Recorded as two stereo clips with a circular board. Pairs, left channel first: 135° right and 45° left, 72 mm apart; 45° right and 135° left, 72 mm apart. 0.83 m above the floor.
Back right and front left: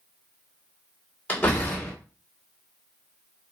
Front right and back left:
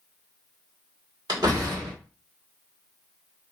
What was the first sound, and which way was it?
A door slam, 155° left.